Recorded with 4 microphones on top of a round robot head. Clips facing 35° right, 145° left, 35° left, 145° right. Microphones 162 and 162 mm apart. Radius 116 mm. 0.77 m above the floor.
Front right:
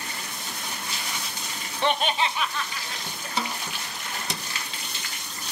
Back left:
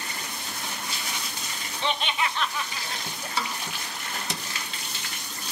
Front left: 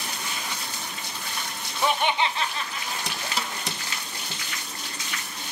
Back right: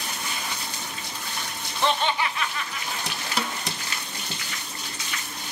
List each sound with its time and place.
1.8 s laughter: 45° right, 1.0 m; by 3.3 s 100° left, 1.5 m
3.4 s a snare drum: 110° right, 0.5 m